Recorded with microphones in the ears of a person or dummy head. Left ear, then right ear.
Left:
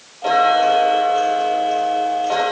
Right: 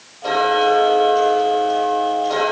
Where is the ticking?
25° left (ahead or behind), 10 m.